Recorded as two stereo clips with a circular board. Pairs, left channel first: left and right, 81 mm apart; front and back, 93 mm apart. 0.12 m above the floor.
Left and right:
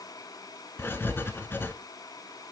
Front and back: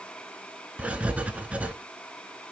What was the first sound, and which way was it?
Writing, 115° left.